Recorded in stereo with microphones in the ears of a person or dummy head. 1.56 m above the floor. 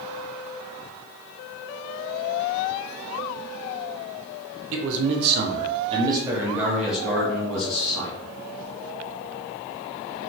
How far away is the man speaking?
About 0.7 m.